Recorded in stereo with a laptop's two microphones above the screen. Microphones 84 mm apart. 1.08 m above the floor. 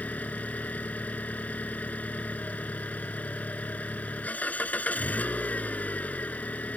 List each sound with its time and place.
0.0 s an engine running: 15° left (ahead or behind)